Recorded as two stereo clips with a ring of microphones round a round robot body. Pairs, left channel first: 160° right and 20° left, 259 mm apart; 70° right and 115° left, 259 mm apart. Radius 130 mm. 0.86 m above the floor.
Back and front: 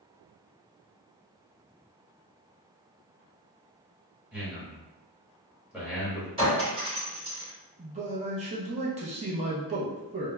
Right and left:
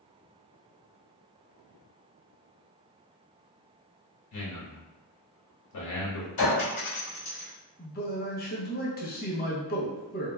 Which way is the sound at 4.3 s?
65° right.